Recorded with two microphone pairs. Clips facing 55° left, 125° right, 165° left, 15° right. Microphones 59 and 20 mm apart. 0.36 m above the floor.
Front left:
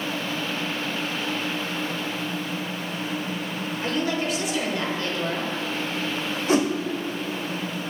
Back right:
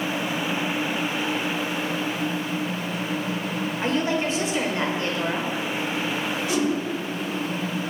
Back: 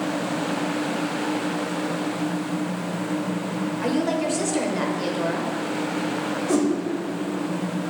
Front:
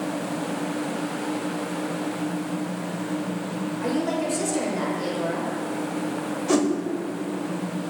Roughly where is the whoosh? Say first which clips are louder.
Front left 4 dB, even; ahead.